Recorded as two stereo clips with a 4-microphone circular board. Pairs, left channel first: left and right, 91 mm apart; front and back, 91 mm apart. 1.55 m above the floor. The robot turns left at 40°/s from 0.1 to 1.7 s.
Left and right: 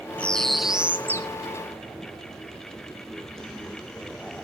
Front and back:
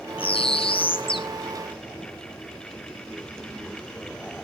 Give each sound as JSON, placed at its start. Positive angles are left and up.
{"t": 0.2, "sound": "a bird", "azimuth_deg": 15, "distance_m": 0.5}